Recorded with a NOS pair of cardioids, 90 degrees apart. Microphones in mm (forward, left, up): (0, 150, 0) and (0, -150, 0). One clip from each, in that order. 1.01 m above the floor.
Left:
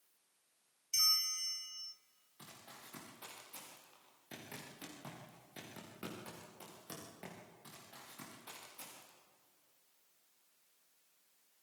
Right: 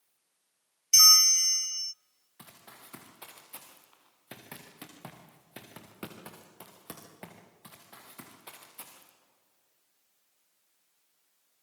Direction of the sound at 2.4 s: 55° right.